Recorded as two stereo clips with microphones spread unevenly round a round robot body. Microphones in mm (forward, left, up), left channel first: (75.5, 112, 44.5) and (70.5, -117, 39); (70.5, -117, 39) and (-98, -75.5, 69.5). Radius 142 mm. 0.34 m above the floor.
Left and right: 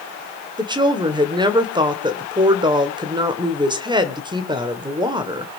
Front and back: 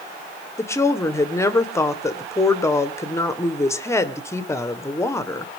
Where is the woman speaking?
45° right, 1.4 m.